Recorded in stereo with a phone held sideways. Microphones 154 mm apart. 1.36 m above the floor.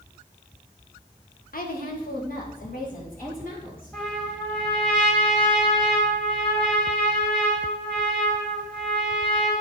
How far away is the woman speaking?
About 1.3 m.